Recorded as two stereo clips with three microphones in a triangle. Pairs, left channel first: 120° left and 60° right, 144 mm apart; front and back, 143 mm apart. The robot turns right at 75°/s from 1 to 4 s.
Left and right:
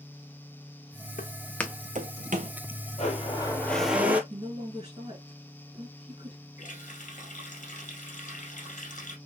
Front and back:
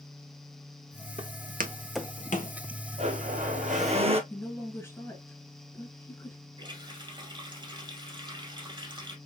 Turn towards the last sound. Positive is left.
turn(degrees=130)